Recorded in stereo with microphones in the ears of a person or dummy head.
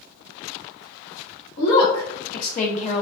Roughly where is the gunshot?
No gunshot in this recording.